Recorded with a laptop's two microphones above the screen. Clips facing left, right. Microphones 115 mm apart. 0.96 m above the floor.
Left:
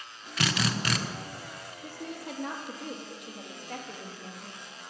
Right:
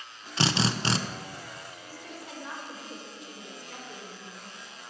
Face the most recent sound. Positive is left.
turn(degrees=65)  # may be behind; listen again after turning